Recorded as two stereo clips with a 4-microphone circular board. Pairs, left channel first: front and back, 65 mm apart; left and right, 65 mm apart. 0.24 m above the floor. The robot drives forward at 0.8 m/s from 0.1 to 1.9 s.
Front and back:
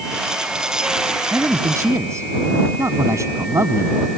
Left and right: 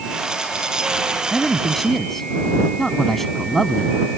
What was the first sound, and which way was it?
A man speaking, 175° left.